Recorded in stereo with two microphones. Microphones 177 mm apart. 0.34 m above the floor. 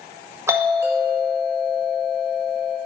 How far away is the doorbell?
About 1.5 m.